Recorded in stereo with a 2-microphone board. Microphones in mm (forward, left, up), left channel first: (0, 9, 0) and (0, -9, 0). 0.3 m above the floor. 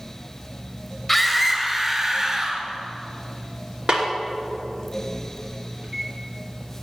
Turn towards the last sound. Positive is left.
turn(degrees=-55)  # may be behind; listen again after turning